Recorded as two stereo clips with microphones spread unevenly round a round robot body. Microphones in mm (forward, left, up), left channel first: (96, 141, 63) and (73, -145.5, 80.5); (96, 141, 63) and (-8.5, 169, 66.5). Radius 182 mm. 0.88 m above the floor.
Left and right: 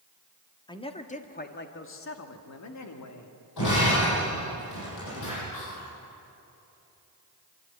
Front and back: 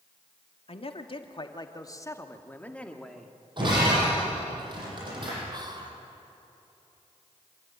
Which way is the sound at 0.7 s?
10° left.